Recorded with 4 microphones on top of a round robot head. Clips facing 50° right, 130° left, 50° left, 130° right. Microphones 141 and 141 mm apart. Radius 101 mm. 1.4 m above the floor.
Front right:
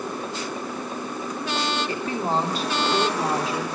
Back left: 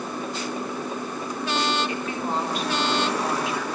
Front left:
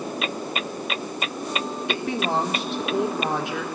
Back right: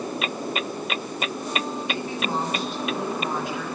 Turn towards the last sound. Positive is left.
turn(degrees=10)